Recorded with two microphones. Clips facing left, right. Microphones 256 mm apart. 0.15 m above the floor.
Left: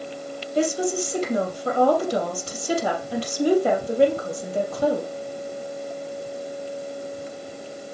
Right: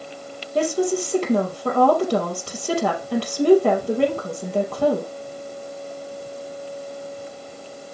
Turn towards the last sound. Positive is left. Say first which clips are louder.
# right 2 dB
turn(degrees=-70)  # may be behind; listen again after turning